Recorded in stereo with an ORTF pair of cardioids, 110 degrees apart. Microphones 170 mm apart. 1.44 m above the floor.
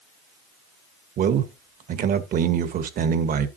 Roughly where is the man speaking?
Ahead right.